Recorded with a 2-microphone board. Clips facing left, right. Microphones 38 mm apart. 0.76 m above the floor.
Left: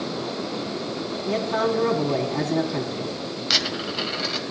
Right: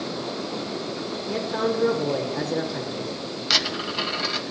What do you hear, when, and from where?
1.3 s a man speaking: 65° left (ahead or behind), 5.5 m
3.5 s a dropped coin: centre (ahead or behind), 2.0 m